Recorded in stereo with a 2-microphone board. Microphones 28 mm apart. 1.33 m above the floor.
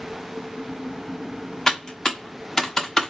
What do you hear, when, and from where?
1.7 s typing on a keyboard: 20° left (ahead or behind), 0.8 m